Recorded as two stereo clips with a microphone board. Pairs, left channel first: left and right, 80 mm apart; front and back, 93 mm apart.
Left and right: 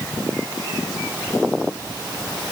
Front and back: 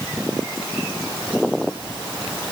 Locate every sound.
Only background noise.